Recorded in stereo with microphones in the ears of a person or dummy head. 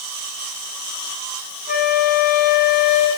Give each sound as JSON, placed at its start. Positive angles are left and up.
{"t": 1.7, "sound": "a flute", "side_deg": 45, "distance_m": 3.0}